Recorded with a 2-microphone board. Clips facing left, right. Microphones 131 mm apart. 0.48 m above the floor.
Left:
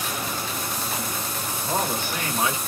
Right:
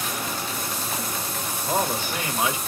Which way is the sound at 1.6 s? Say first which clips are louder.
Right 1 dB; 15° right (ahead or behind).